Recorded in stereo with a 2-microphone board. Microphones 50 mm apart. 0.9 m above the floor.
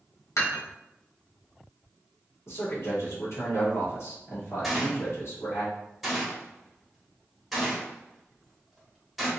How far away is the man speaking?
About 1.8 m.